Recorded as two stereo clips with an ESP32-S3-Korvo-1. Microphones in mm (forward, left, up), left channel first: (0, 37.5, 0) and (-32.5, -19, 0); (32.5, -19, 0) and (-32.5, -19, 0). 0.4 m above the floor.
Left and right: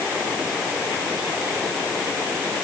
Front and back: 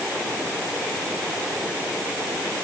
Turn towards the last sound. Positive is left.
No sound to turn to.